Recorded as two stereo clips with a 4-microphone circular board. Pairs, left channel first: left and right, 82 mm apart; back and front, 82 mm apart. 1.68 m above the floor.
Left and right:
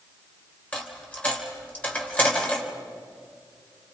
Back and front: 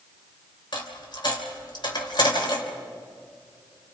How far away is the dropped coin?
About 3 m.